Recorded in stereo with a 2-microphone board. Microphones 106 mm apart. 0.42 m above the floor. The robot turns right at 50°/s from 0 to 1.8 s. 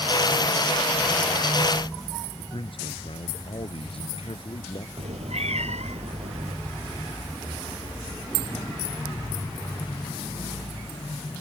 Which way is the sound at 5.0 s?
80° right.